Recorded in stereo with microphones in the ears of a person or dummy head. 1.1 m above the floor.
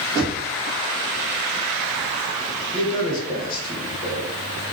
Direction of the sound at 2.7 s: 30° left (ahead or behind).